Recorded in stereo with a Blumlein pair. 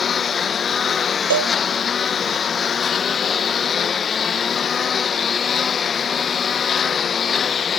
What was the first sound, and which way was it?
A lawn mower, 20° left.